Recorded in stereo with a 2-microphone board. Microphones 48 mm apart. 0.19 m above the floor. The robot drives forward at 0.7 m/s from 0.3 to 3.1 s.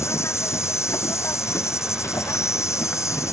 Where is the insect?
70° left (ahead or behind); by 3.3 s 80° left.